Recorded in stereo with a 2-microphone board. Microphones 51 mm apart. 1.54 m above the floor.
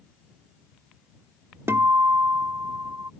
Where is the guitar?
65° right (ahead or behind).